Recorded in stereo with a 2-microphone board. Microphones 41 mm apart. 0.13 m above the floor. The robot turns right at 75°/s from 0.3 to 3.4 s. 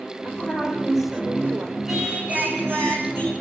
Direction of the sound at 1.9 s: 175° right.